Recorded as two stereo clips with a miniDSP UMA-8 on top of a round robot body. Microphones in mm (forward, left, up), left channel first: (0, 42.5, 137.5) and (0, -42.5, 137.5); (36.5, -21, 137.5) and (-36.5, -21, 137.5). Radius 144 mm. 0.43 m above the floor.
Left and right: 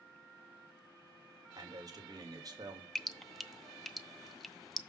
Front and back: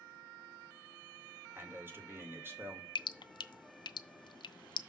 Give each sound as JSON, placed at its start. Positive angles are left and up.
{"t": 1.6, "sound": "a man speaking", "azimuth_deg": -125, "distance_m": 2.5}
{"t": 3.0, "sound": "dripping", "azimuth_deg": 5, "distance_m": 0.7}